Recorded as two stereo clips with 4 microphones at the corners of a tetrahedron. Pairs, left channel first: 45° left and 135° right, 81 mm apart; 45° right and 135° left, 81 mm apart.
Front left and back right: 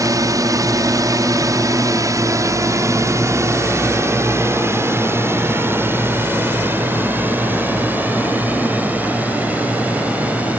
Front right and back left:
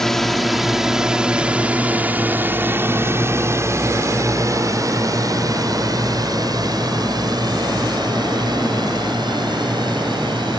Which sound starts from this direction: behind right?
A drone, at 0.0 s.